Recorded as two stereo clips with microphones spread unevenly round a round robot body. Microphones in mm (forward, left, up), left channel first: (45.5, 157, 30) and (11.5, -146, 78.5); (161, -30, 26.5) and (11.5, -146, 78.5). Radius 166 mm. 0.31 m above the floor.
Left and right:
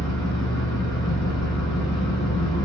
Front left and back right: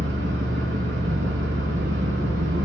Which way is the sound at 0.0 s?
160° left.